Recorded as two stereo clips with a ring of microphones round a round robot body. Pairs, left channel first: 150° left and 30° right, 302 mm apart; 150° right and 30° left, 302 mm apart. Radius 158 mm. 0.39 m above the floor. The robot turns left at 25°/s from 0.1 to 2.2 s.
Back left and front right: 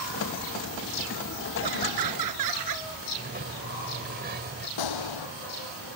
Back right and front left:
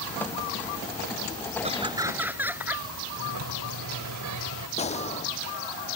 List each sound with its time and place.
1.6 s laughter: 40° right; by 2.9 s 55° right
3.2 s a sliding door: 25° left
4.8 s a gunshot: 140° left